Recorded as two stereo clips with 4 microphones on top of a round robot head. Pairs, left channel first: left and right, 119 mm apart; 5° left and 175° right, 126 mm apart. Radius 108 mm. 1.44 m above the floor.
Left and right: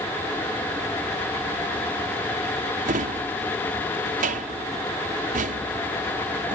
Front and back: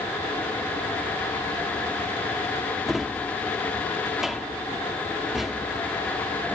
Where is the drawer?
90° right.